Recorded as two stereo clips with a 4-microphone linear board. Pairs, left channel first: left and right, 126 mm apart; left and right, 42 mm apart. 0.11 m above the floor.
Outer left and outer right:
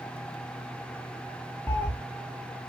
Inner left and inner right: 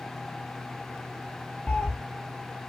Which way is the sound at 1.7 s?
15° left (ahead or behind).